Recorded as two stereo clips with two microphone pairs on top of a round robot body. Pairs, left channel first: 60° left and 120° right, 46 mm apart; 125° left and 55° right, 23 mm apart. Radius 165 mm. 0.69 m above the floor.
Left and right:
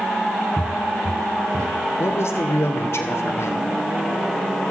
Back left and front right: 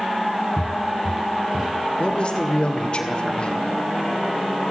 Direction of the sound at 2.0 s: 85° left.